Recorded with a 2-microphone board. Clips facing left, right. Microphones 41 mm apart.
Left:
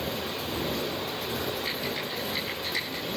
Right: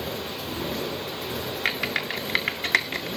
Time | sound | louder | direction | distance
1.6 | typing on a keyboard | right 5 dB | 70° right (ahead or behind) | 2 m